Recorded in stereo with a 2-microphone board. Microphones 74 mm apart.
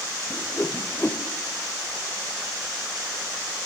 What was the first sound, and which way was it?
A whoosh, 20° left (ahead or behind).